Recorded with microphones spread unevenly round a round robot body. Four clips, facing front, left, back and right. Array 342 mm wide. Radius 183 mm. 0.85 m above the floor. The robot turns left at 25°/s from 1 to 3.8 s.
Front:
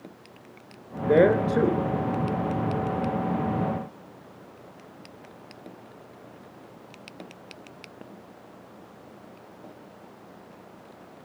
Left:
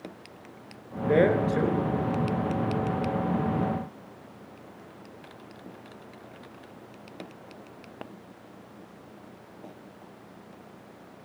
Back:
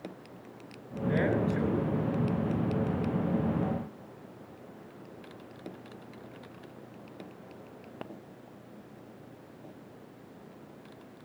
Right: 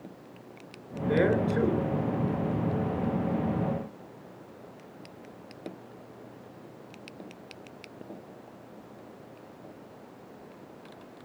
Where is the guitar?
No guitar in this recording.